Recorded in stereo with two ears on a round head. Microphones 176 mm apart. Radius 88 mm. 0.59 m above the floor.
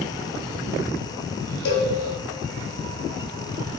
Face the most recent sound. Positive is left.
turn(degrees=85)